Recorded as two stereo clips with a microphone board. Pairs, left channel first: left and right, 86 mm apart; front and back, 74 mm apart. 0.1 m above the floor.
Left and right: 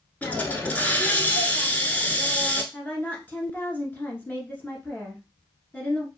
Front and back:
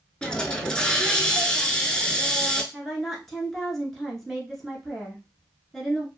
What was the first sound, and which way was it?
A hiss, 55° left.